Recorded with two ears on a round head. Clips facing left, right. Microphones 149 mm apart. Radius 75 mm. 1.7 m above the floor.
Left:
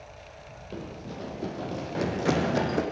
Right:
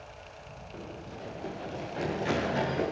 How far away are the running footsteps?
About 4.5 m.